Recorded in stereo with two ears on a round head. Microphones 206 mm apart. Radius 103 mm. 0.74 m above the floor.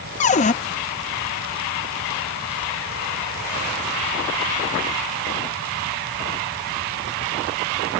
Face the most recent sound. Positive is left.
turn(degrees=30)  # may be behind; listen again after turning